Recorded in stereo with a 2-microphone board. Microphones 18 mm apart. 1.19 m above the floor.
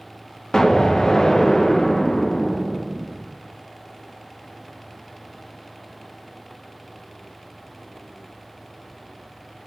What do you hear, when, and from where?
0.5 s an explosion: 45° left (ahead or behind), 0.7 m